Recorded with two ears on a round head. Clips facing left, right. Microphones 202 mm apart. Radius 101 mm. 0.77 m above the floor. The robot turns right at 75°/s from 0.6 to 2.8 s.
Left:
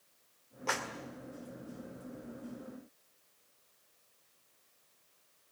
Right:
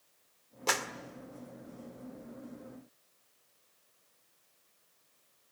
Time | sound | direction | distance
0.7 | a clap | 50° right (ahead or behind) | 2.0 m